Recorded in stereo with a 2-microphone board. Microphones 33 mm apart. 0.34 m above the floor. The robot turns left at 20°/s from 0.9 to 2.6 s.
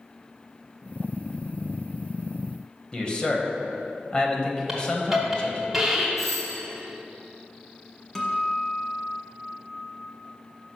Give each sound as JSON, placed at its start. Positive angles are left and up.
{"t": 2.9, "sound": "a man speaking", "side_deg": 30, "distance_m": 1.2}
{"t": 4.7, "sound": "a hiss", "side_deg": -5, "distance_m": 1.6}
{"t": 6.2, "sound": "a doorbell", "side_deg": 10, "distance_m": 1.4}
{"t": 8.2, "sound": "a guitar", "side_deg": 10, "distance_m": 1.1}